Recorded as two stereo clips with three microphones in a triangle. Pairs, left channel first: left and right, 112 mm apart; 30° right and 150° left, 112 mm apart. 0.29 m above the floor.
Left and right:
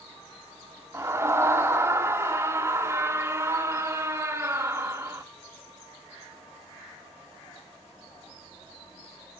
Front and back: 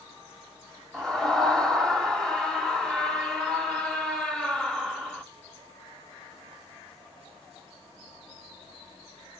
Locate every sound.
0.9 s a scream: 110° right, 1.0 m